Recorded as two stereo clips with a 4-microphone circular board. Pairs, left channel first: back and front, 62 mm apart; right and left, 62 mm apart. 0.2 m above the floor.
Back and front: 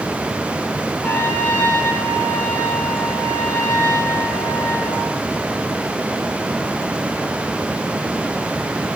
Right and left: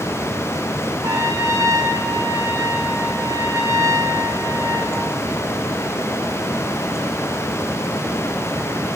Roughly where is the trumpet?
Behind left.